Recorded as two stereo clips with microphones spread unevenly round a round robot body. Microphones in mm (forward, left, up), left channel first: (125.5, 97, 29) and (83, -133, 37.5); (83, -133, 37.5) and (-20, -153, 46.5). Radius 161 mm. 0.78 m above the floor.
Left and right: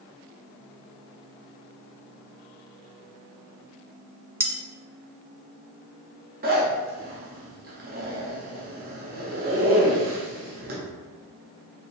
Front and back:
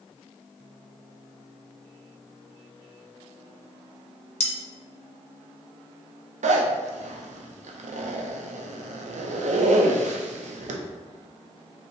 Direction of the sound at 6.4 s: 160° right.